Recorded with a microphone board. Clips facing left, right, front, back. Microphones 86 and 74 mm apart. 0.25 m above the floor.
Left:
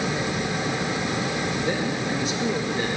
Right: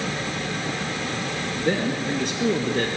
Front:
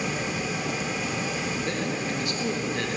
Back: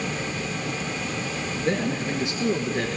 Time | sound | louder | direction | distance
1.6 | a man speaking | right 2 dB, back 3 dB | 120° right | 4.5 m